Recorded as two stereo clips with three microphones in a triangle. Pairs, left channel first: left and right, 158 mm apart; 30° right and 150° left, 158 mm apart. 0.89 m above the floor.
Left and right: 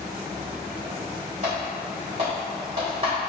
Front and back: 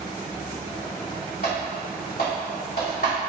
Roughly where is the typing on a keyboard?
Ahead right.